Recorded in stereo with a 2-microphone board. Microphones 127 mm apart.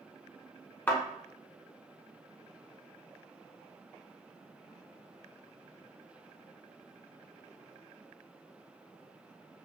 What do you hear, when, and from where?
0.9 s a thud: 15° left (ahead or behind), 0.7 m